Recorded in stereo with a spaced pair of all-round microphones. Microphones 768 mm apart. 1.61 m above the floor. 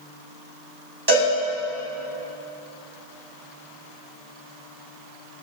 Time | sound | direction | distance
1.1 | a cowbell | 30° right (ahead or behind) | 5 m